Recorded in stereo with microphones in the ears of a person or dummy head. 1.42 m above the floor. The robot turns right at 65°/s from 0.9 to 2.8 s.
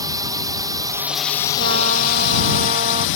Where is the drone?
20° right; by 3.2 s 105° left.